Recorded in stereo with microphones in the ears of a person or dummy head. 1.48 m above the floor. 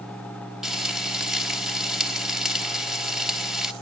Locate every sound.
0.6 s frying: centre (ahead or behind), 3 m